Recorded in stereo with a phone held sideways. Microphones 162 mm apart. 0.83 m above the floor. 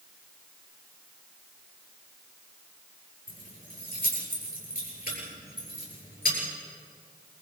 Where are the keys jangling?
70° left (ahead or behind), 9 m.